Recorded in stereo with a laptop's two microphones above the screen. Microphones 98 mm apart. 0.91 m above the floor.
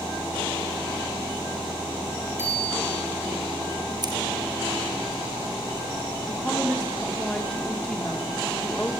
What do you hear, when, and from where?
2.4 s a bicycle bell: 25° right (ahead or behind), 6 m
4.0 s scissors: 45° right (ahead or behind), 4 m
6.3 s a woman speaking: 10° left (ahead or behind), 2.5 m